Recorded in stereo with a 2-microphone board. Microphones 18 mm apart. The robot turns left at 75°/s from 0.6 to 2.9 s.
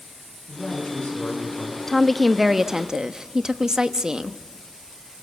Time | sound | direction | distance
0.5 | a man speaking | 135° left | 8 m
1.9 | a woman speaking | 35° left | 1.0 m